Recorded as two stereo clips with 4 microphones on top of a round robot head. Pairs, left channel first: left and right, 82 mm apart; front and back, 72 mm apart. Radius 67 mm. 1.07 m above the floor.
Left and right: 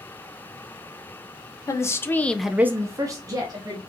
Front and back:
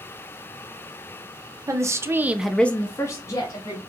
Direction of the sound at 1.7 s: 140° left.